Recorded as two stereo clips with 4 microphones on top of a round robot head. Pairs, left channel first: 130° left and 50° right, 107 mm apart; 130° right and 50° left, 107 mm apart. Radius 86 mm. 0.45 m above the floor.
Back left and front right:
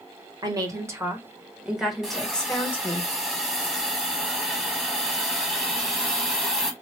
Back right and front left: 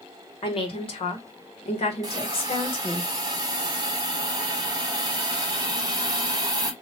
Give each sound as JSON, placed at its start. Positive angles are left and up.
{"t": 0.4, "sound": "a woman speaking", "azimuth_deg": -100, "distance_m": 1.6}
{"t": 2.0, "sound": "a hiss", "azimuth_deg": 30, "distance_m": 1.3}